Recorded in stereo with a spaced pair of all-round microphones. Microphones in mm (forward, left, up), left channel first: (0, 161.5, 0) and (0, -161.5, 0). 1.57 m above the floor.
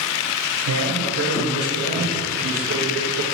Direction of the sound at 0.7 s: 65° right (ahead or behind).